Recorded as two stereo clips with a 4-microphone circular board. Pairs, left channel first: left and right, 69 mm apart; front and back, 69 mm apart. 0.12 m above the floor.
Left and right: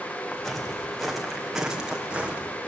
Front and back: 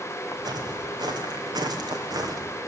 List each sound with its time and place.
0.3 s footsteps: 175° left, 3.5 m; by 2.5 s 160° right, 3 m